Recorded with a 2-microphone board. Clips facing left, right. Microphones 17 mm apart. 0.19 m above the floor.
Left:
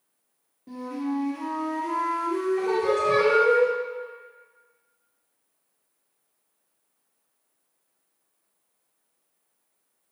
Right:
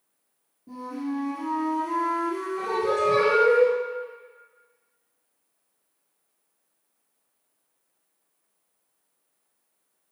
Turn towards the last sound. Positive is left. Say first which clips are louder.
# right 2 dB
turn(degrees=25)  # may be behind; listen again after turning